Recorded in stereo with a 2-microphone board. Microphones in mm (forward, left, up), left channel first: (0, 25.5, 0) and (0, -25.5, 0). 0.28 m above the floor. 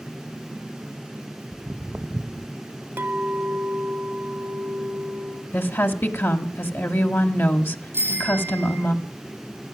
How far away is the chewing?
No chewing in this recording.